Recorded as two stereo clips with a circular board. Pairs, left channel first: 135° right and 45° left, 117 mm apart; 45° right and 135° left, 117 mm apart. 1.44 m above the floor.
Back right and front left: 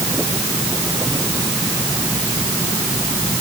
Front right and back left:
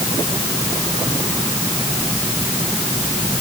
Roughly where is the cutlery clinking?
I don't hear cutlery clinking.